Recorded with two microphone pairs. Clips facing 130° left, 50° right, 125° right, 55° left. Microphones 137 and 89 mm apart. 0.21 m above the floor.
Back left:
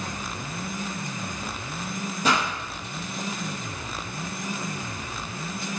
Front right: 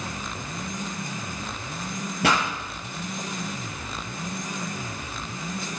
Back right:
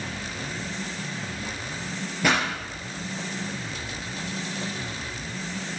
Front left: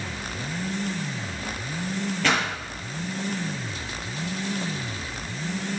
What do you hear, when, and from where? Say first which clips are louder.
2.2 s a pop: front right 1 dB, back right 1 dB; 50° right, 5.5 m